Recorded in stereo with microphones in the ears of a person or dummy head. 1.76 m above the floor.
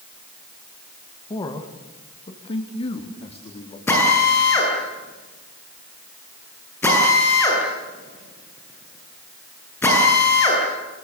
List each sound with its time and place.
1.3 s a man speaking: 20° left (ahead or behind), 2 m; by 3.8 s 30° left (ahead or behind), 4 m
3.9 s a drill: 15° left (ahead or behind), 9.5 m